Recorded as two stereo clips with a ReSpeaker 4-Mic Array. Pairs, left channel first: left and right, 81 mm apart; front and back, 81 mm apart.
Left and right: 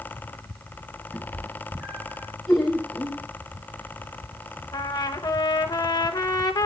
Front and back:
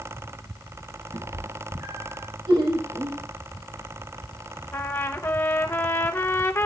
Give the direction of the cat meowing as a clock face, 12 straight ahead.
5 o'clock.